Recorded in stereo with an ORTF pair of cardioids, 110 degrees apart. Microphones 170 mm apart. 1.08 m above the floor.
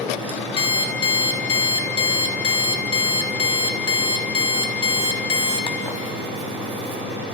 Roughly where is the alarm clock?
Ahead left.